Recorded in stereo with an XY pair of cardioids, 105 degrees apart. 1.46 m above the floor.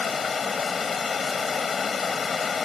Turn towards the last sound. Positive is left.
turn(degrees=45)